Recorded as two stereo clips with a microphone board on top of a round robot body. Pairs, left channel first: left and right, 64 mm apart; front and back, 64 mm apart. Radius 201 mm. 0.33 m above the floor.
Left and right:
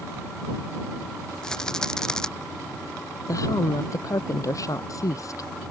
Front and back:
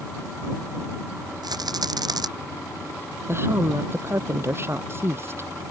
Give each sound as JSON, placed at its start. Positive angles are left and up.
{"t": 1.4, "sound": "a rattle", "azimuth_deg": 170}
{"t": 3.3, "sound": "a woman speaking", "azimuth_deg": 125}